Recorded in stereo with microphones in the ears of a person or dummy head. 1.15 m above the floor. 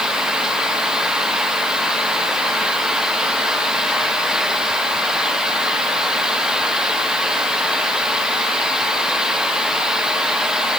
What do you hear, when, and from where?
Only background noise.